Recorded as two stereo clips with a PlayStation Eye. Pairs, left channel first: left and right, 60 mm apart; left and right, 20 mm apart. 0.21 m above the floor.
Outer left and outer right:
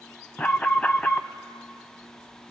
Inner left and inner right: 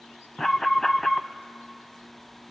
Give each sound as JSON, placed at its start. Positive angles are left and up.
{"t": 0.4, "sound": "an alarm", "side_deg": 25, "distance_m": 0.7}